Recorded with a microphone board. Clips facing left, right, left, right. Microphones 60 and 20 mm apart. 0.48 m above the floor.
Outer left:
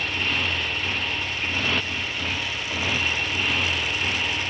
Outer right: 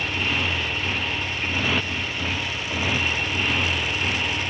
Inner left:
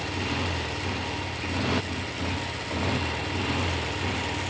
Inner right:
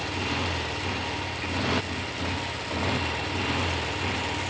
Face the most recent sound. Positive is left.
turn(degrees=-5)  # may be behind; listen again after turning